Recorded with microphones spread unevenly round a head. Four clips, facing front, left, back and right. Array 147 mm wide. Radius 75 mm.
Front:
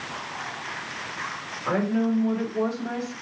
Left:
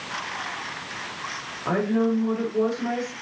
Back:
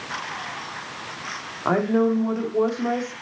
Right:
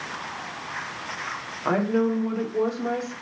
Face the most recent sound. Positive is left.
turn(degrees=-170)